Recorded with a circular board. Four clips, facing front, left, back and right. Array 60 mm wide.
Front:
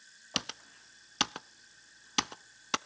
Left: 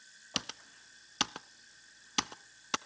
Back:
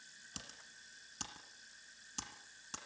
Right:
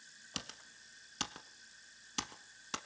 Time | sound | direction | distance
0.3 | typing on a keyboard | 25° left | 0.6 m